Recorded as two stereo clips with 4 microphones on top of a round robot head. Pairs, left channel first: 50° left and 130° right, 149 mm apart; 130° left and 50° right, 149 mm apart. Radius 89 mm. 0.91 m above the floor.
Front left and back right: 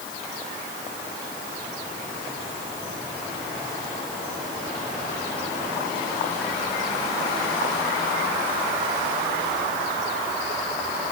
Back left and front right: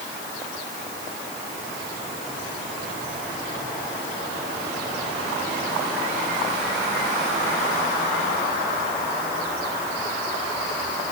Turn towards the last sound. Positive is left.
No sound to turn to.